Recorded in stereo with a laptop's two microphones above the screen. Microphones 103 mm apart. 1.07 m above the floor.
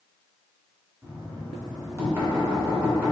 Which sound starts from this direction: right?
Knocking, at 1.0 s.